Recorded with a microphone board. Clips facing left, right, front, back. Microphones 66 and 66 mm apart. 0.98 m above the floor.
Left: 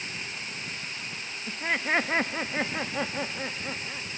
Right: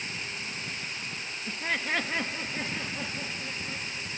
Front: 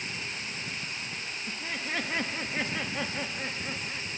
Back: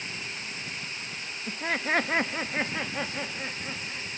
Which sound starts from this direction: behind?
Laughter, at 1.5 s.